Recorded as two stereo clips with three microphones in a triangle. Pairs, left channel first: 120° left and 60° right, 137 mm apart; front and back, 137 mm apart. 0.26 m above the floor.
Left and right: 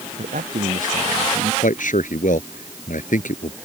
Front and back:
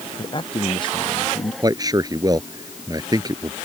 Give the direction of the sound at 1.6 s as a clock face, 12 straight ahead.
8 o'clock.